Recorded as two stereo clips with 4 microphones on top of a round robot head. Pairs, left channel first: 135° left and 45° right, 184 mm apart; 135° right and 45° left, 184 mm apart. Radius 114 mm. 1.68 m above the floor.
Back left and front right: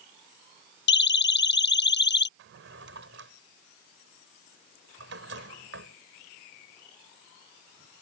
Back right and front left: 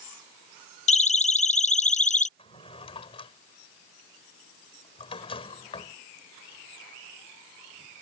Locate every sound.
0.9 s a siren: 170° left
2.4 s a drawer: 75° right